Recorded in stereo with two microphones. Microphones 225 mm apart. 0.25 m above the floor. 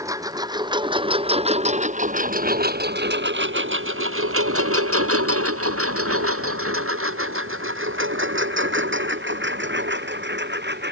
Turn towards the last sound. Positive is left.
turn(degrees=-50)  # may be behind; listen again after turning